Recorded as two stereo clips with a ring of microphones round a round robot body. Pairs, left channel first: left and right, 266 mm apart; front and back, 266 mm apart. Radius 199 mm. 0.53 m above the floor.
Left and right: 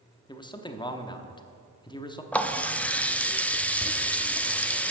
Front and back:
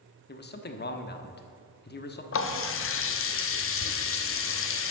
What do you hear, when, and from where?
0.3 s a man speaking: 25° left, 1.0 m
2.3 s a running tap: 5° left, 0.8 m